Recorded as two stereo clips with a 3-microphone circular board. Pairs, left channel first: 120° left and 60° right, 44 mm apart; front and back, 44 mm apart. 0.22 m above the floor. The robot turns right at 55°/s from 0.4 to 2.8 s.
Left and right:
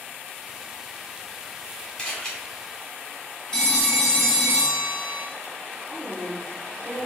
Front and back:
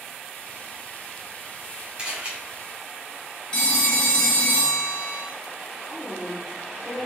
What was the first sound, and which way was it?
A camera shutter, 165° left.